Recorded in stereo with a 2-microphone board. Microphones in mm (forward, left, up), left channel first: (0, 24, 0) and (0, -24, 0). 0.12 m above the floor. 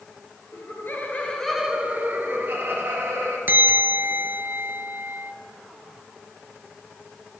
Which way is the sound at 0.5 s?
55° left (ahead or behind).